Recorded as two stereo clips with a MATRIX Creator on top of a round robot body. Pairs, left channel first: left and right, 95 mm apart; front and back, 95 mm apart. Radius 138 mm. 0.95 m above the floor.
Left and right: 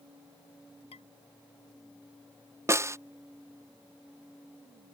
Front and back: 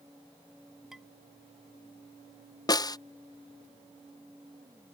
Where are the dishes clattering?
95° left.